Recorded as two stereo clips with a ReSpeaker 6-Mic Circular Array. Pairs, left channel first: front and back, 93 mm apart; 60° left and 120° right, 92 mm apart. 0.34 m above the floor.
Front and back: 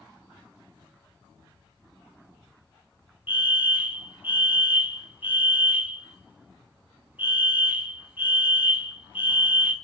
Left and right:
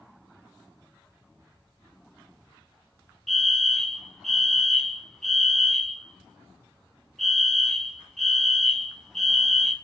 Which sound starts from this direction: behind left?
A fire alarm, at 3.3 s.